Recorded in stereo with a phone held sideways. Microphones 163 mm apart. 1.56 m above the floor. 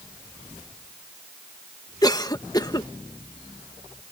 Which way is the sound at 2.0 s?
25° left (ahead or behind).